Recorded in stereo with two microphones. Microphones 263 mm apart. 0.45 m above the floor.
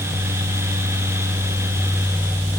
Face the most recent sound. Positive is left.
No sound to turn to.